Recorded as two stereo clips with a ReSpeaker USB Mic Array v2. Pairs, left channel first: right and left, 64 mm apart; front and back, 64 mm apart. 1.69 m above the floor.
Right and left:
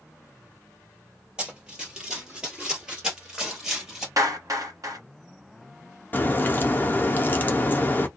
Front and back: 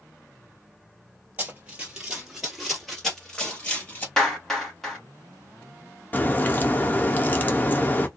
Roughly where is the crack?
Ahead right.